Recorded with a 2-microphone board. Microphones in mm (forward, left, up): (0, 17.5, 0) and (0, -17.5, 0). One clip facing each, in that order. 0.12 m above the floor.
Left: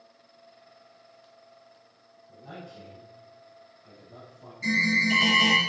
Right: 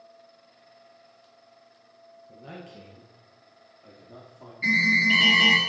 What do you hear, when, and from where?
2.3 s a man speaking: 50° right (ahead or behind), 2 m; by 4.5 s 70° right (ahead or behind), 4 m
4.6 s an alarm: 25° right (ahead or behind), 2.5 m